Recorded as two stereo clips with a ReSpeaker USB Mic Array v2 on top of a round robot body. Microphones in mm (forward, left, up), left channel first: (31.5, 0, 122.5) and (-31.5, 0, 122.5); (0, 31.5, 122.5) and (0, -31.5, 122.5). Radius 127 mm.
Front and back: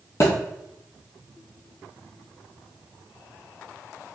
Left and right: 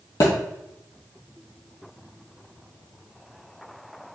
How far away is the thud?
About 1.2 m.